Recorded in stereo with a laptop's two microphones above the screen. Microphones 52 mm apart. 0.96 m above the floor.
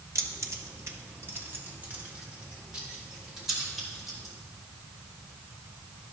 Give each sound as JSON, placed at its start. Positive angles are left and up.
{"t": 0.1, "sound": "keys jangling", "side_deg": -80, "distance_m": 1.1}